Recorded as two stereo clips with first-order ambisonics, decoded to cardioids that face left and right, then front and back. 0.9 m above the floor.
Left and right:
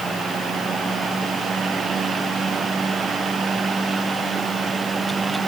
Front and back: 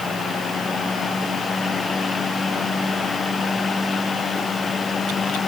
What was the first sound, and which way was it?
Only background noise.